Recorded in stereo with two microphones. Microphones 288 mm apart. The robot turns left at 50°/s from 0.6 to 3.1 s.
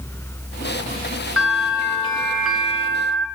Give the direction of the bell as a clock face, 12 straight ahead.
10 o'clock.